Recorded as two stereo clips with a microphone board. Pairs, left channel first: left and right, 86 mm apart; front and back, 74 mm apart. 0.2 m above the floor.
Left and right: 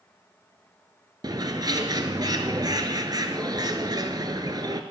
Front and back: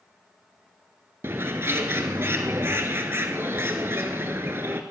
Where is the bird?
125° right, 1.0 m.